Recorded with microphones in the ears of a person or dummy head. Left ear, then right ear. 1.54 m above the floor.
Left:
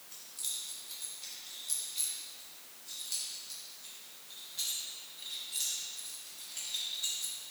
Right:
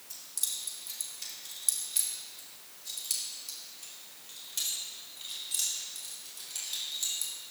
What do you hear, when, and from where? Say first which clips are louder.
0.1 s keys jangling: right 3 dB; 45° right (ahead or behind), 1.9 m; by 7.3 s 50° right (ahead or behind), 5.5 m